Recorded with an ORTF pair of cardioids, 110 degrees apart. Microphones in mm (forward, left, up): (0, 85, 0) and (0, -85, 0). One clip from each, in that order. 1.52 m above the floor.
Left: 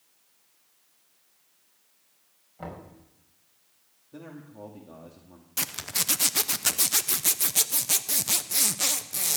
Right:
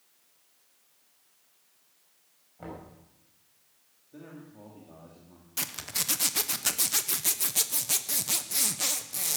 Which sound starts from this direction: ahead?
A zipper, at 5.6 s.